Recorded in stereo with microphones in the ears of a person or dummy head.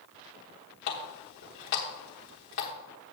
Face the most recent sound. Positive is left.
turn(degrees=40)  # may be behind; listen again after turning